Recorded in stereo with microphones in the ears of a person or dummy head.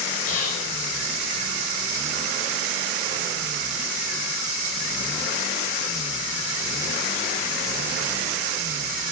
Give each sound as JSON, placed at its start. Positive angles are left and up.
{"t": 0.3, "sound": "whispering", "side_deg": 40, "distance_m": 0.6}